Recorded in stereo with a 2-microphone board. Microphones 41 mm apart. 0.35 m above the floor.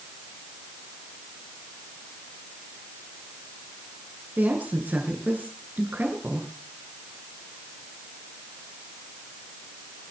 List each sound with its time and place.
4.4 s a woman speaking: 50° right (ahead or behind), 5 m